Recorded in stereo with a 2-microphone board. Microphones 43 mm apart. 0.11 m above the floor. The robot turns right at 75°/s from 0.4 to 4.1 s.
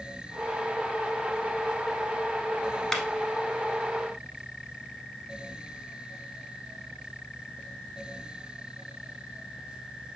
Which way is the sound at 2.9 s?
5° left (ahead or behind).